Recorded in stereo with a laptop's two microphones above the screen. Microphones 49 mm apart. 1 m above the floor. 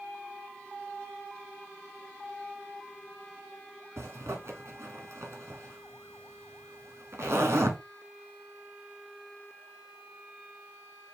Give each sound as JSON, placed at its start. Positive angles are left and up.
{"t": 4.0, "sound": "a zipper", "side_deg": -60, "distance_m": 1.5}